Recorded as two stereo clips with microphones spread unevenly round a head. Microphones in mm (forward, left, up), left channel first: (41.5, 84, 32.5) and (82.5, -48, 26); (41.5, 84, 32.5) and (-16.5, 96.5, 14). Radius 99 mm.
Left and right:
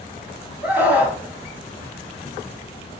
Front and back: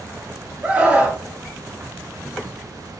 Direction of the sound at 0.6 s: 145° right.